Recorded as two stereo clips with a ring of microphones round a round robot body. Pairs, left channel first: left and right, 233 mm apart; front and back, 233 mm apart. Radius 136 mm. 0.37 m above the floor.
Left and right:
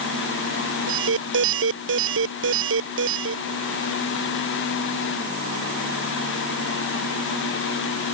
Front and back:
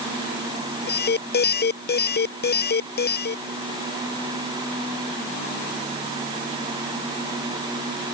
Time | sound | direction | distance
0.9 | an alarm | 45° right | ?